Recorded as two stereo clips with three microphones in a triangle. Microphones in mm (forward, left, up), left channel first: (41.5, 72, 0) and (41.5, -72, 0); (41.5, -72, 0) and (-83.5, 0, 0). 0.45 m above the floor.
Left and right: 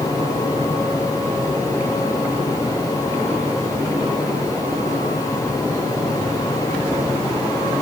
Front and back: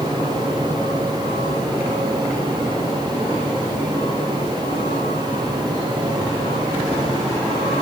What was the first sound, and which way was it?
Only background noise.